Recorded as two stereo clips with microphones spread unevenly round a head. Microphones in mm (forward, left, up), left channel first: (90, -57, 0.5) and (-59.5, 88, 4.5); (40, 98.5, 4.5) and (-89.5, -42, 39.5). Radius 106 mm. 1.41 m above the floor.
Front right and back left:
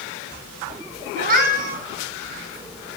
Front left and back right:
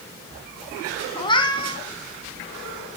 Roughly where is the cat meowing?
Behind left.